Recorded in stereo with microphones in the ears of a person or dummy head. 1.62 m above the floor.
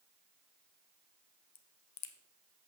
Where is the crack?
80° left, 0.9 m.